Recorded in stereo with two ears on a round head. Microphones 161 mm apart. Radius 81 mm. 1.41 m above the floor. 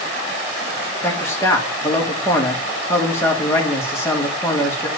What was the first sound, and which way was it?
A man speaking, 15° left (ahead or behind).